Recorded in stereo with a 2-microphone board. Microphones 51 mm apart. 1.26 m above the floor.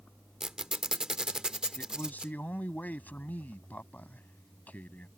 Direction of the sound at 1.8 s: 30° left (ahead or behind).